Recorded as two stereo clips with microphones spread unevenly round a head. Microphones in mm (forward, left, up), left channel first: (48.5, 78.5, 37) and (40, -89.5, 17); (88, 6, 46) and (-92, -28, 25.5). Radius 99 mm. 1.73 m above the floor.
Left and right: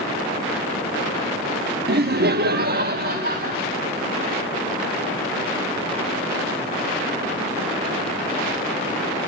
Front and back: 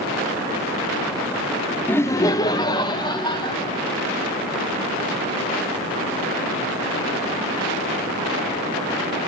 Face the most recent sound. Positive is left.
turn(degrees=-55)